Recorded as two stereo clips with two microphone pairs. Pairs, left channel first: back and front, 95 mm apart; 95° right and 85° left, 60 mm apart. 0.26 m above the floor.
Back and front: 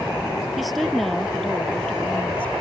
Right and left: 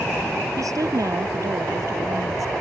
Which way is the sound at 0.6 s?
85° left.